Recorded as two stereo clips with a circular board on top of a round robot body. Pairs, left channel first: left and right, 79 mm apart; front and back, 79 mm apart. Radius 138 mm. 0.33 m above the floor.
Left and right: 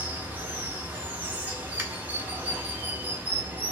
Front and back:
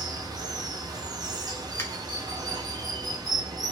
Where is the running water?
155° right, 0.8 m.